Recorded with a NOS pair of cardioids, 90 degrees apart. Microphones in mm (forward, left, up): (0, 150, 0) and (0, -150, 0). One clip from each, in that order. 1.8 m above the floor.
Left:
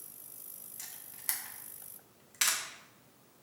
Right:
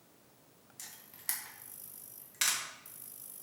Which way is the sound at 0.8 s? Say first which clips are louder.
Left 1 dB; 10° left.